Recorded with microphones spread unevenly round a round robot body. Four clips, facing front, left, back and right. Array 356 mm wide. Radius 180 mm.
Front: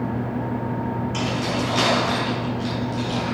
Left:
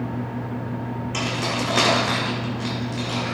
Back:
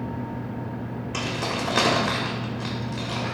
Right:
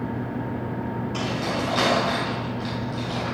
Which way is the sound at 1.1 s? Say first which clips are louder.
Left 2 dB, front 1 dB; 155° left.